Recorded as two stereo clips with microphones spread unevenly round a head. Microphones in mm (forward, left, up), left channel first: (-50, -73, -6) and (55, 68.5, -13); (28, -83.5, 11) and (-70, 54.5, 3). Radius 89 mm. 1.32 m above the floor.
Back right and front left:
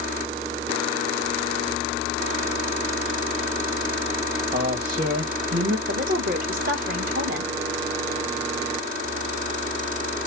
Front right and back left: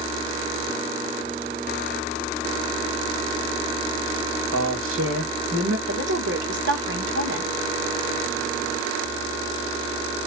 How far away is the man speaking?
About 1.5 m.